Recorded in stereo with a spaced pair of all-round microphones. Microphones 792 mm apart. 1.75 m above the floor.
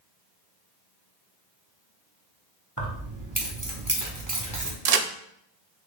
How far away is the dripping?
No dripping in this recording.